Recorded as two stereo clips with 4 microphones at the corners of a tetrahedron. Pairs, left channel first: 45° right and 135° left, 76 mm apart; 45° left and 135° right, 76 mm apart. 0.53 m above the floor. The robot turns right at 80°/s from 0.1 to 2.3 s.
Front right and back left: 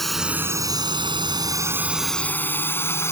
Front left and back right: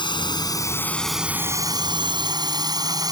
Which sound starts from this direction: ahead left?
A drone, at 0.0 s.